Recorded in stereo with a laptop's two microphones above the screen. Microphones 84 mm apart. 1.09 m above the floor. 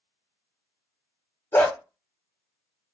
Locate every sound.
1.5 s a dog barking: 30° left (ahead or behind), 0.8 m